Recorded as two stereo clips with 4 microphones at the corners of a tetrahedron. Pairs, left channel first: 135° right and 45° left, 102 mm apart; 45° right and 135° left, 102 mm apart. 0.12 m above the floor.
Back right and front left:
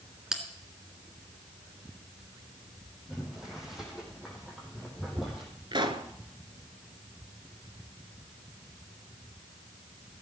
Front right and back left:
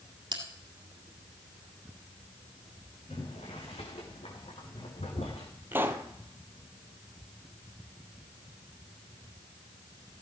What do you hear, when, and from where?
0.3 s a bell: 130° left, 2 m
3.1 s boiling: 40° right, 3.5 m
5.7 s a pop: 70° left, 1.1 m